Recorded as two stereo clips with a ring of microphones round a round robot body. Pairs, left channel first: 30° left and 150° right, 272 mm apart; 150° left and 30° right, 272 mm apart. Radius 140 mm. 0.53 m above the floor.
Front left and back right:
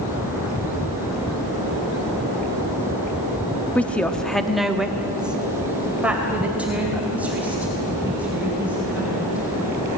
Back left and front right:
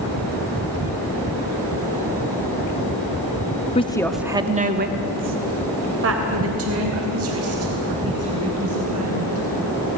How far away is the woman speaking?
About 1.3 m.